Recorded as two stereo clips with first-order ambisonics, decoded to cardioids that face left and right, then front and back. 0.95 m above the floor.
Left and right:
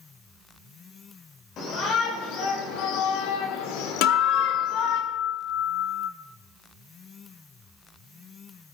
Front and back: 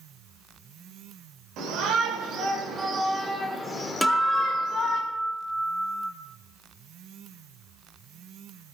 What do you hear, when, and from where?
1.6 s a shout: 140° left, 3.5 m; by 5.0 s 55° left, 3.5 m
4.0 s a guitar: 90° left, 1.6 m